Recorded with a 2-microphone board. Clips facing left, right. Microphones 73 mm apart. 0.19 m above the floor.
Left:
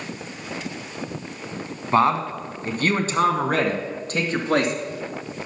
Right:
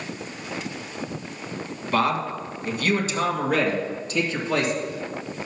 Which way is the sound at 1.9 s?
30° left (ahead or behind).